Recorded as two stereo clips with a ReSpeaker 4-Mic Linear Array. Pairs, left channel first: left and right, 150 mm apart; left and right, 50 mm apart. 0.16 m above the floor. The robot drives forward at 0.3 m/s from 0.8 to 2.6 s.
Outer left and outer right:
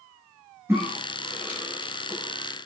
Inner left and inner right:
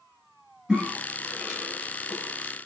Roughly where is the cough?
Centre.